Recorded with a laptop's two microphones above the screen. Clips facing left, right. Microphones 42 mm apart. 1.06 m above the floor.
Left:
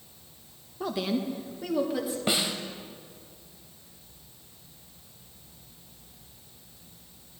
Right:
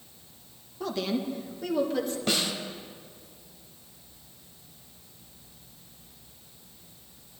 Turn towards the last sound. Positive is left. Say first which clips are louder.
# left 2 dB
turn(degrees=15)  # may be behind; listen again after turning